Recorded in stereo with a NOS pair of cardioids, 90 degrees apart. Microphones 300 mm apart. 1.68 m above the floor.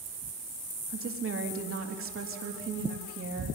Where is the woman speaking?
50° right, 3.5 m.